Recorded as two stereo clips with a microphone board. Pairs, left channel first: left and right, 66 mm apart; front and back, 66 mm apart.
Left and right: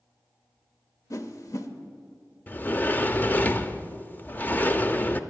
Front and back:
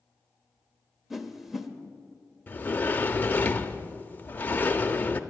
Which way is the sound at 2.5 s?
45° left.